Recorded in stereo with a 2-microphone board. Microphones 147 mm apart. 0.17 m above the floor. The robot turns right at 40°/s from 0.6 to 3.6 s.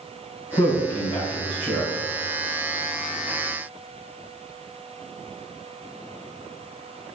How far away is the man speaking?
About 1.2 m.